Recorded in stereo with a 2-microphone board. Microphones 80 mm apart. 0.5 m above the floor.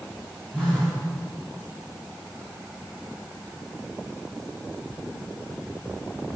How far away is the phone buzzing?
About 4.5 m.